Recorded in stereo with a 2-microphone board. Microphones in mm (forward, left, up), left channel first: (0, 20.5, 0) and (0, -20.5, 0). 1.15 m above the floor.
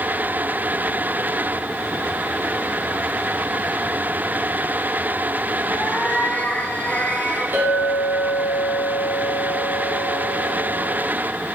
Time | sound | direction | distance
5.7 | a cat meowing | 45° left (ahead or behind) | 2.5 m
7.5 | a clink | 80° right | 5.5 m